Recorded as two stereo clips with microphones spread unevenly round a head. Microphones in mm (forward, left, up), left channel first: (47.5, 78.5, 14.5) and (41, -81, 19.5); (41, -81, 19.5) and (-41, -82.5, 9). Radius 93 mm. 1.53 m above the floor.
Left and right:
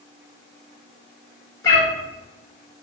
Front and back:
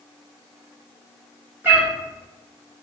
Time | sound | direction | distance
1.6 | a cat meowing | 130° left | 0.9 m